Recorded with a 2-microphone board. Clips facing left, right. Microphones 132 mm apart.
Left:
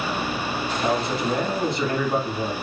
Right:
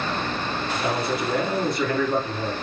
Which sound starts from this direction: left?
A man speaking, at 0.7 s.